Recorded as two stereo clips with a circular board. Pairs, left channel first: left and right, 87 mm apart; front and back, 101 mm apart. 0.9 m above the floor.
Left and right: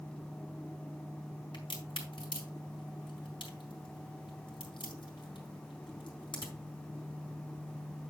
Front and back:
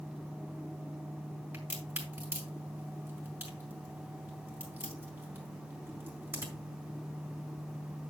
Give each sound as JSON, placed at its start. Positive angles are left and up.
{"t": 1.5, "sound": "a crack", "azimuth_deg": 110, "distance_m": 4.0}